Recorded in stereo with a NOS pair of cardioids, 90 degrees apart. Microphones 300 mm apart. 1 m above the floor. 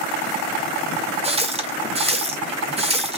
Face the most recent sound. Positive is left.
turn(degrees=-20)